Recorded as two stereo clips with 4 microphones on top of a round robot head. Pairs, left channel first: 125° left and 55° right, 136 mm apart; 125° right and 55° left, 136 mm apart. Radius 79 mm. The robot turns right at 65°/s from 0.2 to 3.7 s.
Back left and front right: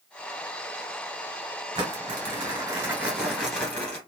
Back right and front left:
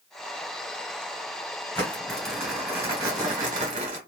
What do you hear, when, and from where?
1.8 s crumpling: 70° right, 1.2 m; by 4.0 s 55° left, 1.2 m